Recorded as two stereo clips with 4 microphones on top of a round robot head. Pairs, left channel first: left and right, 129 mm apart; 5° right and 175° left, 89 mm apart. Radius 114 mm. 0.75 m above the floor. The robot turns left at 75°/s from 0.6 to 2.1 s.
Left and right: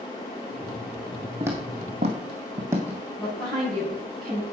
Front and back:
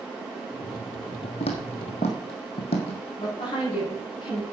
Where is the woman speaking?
10° left, 6.5 m.